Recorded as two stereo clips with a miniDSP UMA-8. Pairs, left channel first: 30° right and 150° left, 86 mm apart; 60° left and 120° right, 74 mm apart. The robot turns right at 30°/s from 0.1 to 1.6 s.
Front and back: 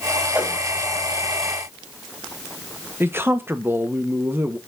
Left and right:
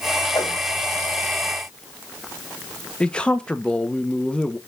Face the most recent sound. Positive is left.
turn(degrees=120)